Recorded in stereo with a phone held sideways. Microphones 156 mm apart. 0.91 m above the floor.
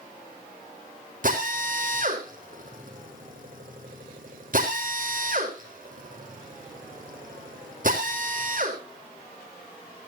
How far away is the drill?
About 4 m.